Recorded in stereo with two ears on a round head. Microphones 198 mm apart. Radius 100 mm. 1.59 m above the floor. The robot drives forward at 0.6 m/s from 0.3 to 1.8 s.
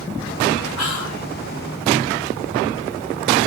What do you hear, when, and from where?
0.8 s whispering: 80° left, 2 m; by 1.3 s 70° left (ahead or behind), 2.5 m